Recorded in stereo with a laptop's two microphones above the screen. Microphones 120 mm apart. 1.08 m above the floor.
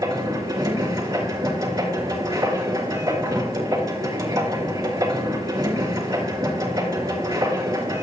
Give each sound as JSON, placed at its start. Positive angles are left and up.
{"t": 0.0, "sound": "a machine running", "side_deg": -30, "distance_m": 3.0}